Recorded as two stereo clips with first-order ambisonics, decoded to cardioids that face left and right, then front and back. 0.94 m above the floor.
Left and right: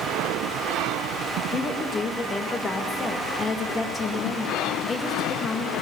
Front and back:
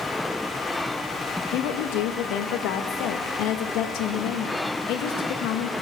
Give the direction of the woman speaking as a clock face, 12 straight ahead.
11 o'clock.